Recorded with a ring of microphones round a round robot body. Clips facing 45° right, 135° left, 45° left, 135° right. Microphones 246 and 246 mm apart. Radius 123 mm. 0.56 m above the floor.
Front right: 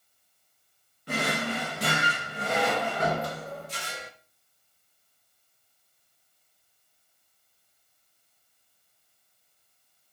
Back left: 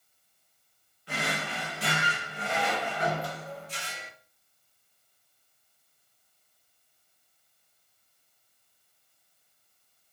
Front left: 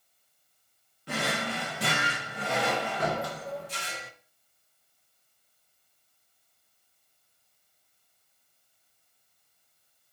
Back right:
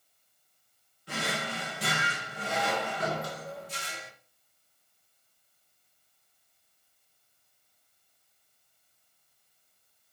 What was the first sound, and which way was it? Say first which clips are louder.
A drawer: front right 6 dB, front left 3 dB; 5° left.